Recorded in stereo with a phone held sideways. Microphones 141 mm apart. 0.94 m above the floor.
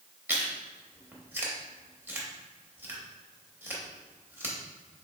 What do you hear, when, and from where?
0.3 s chewing: 15° right (ahead or behind), 0.9 m